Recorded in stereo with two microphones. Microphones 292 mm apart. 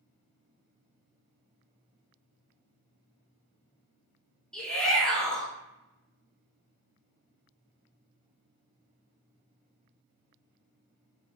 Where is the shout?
5° left (ahead or behind), 1.5 m.